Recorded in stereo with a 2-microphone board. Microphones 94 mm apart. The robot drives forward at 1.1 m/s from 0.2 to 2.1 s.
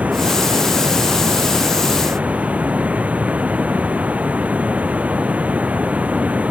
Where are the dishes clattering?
No dishes clattering in this recording.